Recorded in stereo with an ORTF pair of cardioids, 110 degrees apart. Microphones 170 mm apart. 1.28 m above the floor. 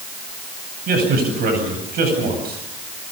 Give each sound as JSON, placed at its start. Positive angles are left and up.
{"t": 0.9, "sound": "a man speaking", "azimuth_deg": -60, "distance_m": 9.5}